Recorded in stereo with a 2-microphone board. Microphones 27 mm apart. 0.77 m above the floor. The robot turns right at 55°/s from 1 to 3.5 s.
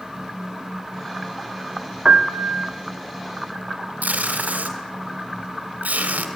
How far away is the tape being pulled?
About 2.5 m.